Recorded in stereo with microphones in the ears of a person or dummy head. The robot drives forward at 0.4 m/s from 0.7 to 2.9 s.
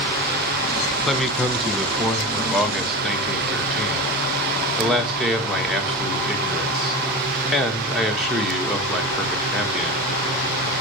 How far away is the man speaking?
About 1.0 m.